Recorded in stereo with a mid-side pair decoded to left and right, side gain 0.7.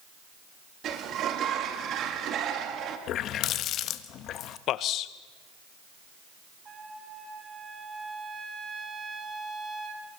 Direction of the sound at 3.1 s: 50° left.